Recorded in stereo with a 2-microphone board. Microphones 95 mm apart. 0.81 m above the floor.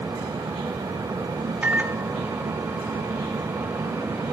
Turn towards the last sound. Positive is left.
turn(degrees=-20)  # may be behind; listen again after turning